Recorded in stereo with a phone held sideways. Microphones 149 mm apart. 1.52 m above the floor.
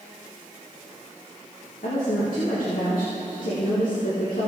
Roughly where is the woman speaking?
Left.